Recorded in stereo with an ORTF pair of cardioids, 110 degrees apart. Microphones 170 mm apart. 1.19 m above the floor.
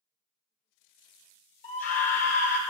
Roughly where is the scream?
Ahead left.